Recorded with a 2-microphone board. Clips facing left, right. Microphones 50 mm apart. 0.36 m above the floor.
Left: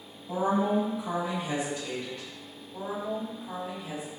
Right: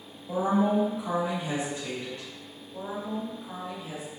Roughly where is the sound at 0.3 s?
Right.